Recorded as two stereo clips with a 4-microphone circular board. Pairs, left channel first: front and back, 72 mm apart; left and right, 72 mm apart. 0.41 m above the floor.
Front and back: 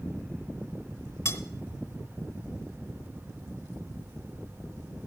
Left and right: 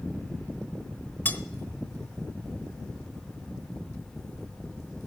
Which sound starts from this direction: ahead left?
Cutlery clinking, at 1.2 s.